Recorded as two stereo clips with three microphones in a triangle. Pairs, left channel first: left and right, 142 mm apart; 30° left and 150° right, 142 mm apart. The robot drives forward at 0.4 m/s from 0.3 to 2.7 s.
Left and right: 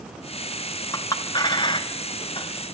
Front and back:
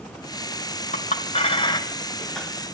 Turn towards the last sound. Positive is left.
turn(degrees=135)